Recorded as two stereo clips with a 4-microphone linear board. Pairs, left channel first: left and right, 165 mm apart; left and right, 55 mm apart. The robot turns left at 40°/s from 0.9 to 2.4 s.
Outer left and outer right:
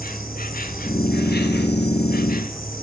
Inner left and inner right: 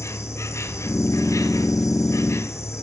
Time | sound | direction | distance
0.0 | an insect | 120° left | 0.8 m